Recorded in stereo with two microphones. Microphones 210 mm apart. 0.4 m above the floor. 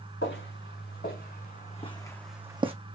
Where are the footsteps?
60° left (ahead or behind), 2.5 m; by 2.8 s 30° right (ahead or behind), 0.9 m.